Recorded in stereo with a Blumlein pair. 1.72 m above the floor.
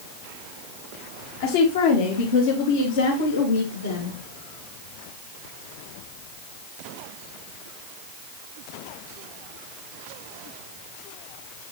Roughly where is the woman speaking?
Ahead left.